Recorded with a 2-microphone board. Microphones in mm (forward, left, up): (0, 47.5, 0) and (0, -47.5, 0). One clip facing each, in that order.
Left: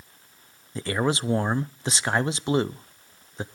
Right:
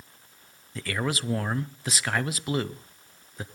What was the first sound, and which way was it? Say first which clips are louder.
A man speaking: left 5 dB; 30° left (ahead or behind).